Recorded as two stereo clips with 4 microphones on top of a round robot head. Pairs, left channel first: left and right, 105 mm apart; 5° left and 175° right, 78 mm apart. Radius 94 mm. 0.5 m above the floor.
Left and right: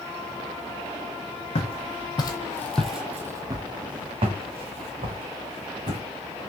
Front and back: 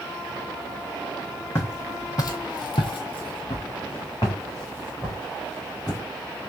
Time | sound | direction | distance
1.6 | footsteps | 65° left | 1.2 m